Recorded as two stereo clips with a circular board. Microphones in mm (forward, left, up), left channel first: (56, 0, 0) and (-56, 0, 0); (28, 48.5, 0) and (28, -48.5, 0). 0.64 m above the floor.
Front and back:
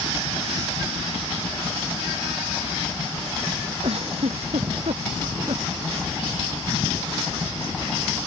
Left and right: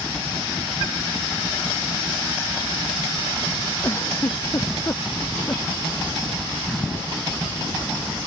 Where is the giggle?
150° left.